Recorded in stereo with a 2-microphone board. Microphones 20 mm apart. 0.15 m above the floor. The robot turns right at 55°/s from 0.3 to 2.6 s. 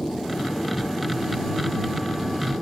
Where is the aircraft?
95° left; by 2.6 s 140° right.